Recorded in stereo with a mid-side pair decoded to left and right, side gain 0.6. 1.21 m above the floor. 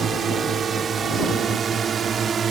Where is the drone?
35° right; by 2.5 s 40° right.